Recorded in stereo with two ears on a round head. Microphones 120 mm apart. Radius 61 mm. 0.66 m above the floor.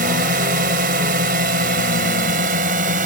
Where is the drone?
65° right (ahead or behind); by 3.1 s 70° right (ahead or behind).